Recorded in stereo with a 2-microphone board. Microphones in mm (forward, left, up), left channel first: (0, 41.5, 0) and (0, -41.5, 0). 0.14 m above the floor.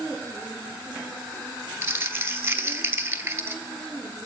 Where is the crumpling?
30° right (ahead or behind), 0.8 m.